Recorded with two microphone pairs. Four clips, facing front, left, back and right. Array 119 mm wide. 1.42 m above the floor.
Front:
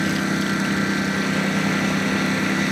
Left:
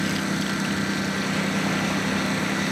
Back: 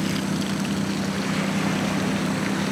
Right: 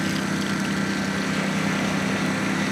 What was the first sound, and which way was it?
A lawn mower, 5° right.